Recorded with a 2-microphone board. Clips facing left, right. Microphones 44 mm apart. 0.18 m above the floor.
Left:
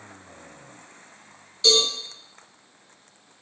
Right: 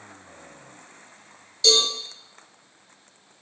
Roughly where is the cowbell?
Left.